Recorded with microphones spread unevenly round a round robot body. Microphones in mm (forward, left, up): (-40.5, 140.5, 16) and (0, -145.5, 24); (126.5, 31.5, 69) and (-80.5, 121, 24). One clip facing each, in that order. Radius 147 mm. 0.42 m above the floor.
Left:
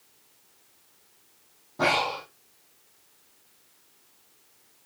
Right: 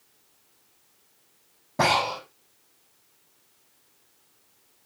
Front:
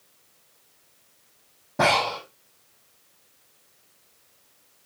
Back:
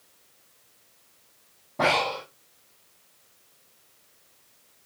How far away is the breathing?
About 5.5 m.